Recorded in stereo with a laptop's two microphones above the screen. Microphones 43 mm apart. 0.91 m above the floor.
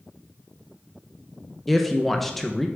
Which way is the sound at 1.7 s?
5° left (ahead or behind).